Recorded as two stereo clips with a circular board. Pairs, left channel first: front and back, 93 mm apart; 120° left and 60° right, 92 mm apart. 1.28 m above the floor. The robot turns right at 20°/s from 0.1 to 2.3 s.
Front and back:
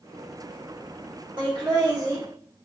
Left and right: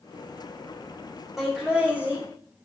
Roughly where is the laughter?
Behind right.